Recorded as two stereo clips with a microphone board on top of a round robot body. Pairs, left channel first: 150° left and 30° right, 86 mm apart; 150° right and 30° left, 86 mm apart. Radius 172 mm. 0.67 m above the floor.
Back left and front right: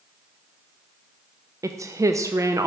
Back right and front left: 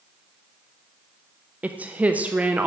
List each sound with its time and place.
1.6 s a woman speaking: 30° right, 0.6 m